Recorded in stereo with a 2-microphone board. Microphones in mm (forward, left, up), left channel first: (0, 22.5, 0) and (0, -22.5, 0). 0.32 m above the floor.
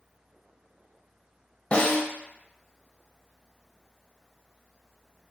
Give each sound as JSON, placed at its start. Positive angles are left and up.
{"t": 1.7, "sound": "a snare drum", "side_deg": 25, "distance_m": 0.7}